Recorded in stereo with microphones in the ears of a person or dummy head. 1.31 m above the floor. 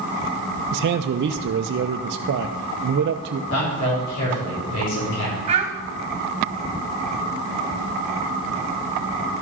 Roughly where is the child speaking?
Right.